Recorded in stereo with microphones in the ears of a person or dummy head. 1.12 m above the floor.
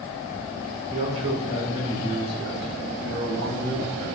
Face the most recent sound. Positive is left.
turn(degrees=-25)  # may be behind; listen again after turning